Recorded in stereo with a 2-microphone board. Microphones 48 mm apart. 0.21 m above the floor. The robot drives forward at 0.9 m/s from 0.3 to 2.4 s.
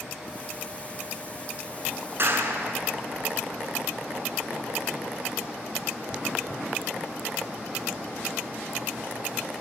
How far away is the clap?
About 2 m.